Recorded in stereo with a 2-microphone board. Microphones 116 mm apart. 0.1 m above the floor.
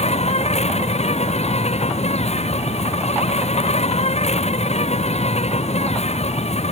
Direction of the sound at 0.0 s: 65° left (ahead or behind).